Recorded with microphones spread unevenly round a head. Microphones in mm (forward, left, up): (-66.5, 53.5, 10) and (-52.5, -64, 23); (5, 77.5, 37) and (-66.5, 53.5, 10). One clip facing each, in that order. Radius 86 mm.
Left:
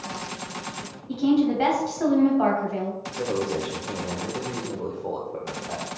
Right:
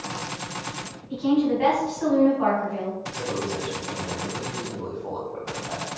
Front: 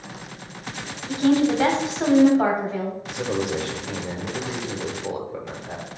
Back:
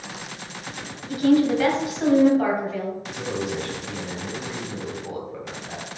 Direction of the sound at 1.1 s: 80° left.